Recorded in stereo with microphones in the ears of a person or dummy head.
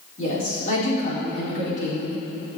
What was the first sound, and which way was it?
A woman speaking, 40° left (ahead or behind).